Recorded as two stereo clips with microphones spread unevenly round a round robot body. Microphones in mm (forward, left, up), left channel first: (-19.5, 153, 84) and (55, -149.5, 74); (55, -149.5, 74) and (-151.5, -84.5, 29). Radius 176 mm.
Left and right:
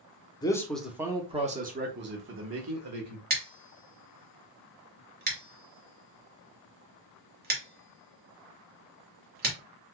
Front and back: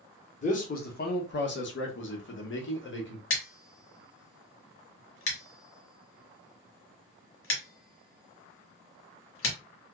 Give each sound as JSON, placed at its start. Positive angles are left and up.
{"t": 0.4, "sound": "a man speaking", "azimuth_deg": 35, "distance_m": 1.0}
{"t": 3.3, "sound": "scissors", "azimuth_deg": -25, "distance_m": 1.6}